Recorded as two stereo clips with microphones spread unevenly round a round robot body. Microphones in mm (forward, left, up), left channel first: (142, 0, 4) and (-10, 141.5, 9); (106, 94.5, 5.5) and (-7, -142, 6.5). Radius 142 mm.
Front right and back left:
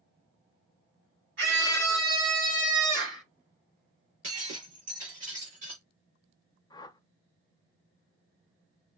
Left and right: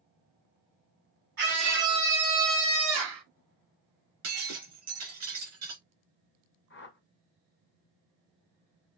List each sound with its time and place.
1.4 s a scream: 175° right, 4 m; by 3.2 s 155° right, 5 m
4.2 s breaking glass: 155° right, 3.5 m
6.7 s a whoosh: 25° left, 0.8 m